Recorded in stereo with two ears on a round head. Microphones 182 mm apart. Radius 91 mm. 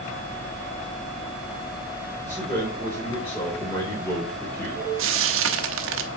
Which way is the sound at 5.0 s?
75° right (ahead or behind).